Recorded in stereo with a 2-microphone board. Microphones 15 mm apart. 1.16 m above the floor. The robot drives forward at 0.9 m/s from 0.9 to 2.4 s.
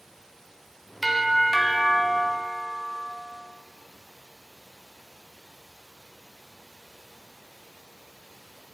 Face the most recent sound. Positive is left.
turn(degrees=10)  # may be behind; listen again after turning